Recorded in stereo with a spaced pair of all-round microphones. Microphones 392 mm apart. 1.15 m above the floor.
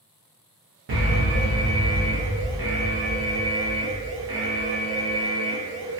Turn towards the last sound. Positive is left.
turn(degrees=-65)  # may be behind; listen again after turning